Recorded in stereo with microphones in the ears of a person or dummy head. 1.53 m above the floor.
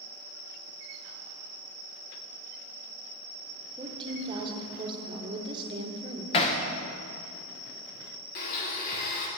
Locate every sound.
3.8 s a woman speaking: 25° right (ahead or behind), 0.9 m
6.3 s hammering: 35° left (ahead or behind), 0.7 m
8.3 s a blender: 50° left (ahead or behind), 0.9 m